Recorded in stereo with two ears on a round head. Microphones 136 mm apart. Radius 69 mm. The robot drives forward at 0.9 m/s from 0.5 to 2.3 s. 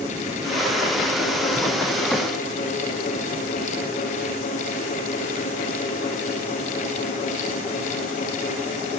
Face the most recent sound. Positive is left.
No sound to turn to.